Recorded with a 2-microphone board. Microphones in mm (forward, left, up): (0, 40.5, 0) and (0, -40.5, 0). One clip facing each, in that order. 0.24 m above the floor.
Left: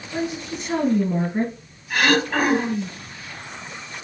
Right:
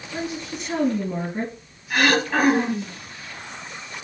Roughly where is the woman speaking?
Left.